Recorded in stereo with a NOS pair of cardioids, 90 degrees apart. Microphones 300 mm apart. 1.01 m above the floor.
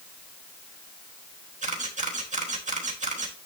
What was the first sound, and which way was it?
A camera shutter, 25° right.